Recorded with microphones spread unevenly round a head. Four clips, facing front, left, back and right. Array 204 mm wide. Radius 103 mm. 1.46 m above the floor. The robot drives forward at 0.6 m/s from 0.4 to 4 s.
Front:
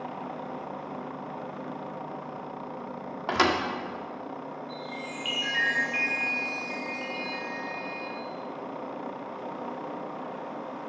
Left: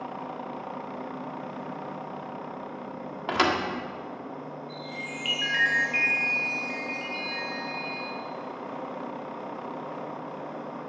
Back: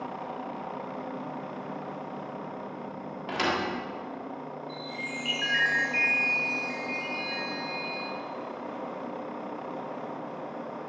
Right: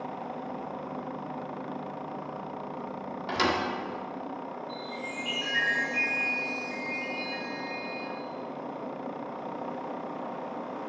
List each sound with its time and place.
3.3 s a thud: 40° left, 1.6 m; by 3.6 s 45° left, 1.5 m
4.7 s a chime: 105° left, 3.5 m